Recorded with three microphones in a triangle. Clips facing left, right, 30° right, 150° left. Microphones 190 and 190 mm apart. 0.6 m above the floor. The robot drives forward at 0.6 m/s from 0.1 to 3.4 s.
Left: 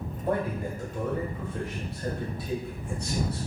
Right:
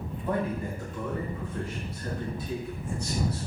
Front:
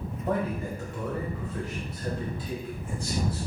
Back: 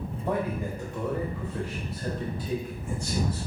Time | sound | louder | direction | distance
0.3 | a man speaking | left 1 dB, even | 70° left | 2 m